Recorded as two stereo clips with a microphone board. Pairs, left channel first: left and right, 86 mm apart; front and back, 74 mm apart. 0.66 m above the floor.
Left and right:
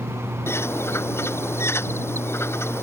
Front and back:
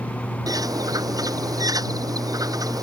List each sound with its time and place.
0.5 s a bird: 150° left